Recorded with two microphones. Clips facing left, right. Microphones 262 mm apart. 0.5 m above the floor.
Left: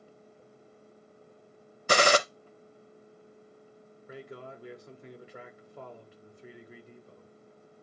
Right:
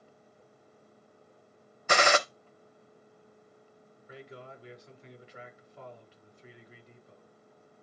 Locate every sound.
1.9 s a gunshot: 40° left (ahead or behind), 0.5 m
4.1 s a man speaking: 55° left (ahead or behind), 1.3 m